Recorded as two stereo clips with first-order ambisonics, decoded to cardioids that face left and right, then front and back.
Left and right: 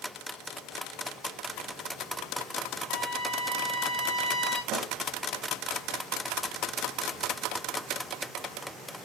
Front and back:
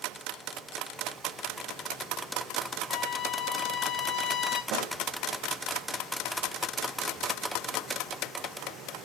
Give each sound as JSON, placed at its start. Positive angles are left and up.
{"t": 2.9, "sound": "a trumpet", "azimuth_deg": 35, "distance_m": 4.0}
{"t": 4.7, "sound": "a snare drum", "azimuth_deg": -145, "distance_m": 1.5}